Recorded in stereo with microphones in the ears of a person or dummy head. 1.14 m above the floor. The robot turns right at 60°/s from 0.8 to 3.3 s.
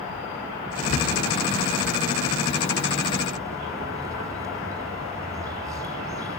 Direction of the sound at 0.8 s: 45° left.